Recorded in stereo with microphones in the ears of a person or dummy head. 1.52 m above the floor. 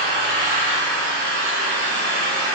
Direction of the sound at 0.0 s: 75° right (ahead or behind).